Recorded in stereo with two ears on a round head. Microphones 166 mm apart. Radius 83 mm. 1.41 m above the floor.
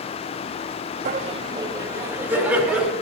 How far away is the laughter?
About 0.9 m.